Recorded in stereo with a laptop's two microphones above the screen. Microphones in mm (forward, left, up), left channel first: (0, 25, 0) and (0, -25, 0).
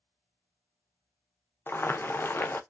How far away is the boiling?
About 0.5 m.